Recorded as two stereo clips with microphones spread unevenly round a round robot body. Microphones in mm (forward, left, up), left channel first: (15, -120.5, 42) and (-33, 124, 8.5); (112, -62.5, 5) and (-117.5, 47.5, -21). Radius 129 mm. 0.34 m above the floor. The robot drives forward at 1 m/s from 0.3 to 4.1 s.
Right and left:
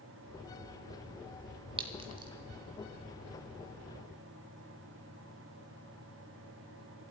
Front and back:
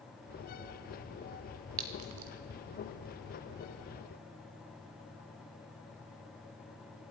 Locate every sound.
1.8 s a clink: 170° left, 1.3 m